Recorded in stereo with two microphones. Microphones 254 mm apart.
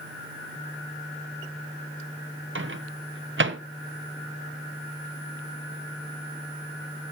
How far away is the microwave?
About 0.9 m.